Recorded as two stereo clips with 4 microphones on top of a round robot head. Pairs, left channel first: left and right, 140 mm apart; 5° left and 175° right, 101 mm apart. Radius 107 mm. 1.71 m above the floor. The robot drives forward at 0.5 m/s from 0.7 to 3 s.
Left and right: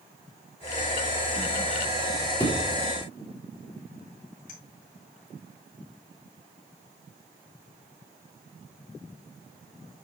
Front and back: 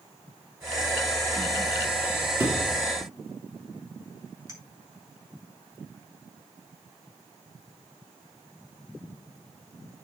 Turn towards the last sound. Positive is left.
turn(degrees=130)